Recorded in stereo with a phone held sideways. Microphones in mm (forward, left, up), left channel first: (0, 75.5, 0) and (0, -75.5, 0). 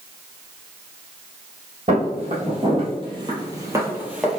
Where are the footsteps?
45° right (ahead or behind), 1.8 m; by 4.4 s centre (ahead or behind), 1.1 m.